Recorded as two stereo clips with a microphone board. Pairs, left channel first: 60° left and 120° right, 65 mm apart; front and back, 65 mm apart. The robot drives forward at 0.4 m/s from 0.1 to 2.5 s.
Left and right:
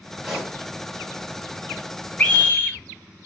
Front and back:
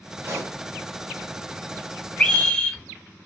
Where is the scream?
35° left, 1.3 m; by 2.8 s 45° left, 1.3 m.